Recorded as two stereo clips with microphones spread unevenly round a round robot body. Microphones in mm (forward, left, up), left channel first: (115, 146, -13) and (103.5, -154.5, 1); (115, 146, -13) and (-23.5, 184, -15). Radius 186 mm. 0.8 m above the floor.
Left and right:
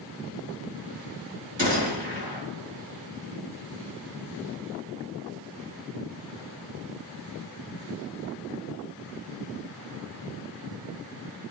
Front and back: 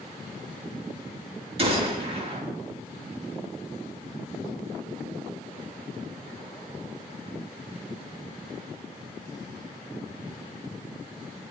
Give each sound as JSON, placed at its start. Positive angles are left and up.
{"t": 1.6, "sound": "a gunshot", "azimuth_deg": -165, "distance_m": 8.0}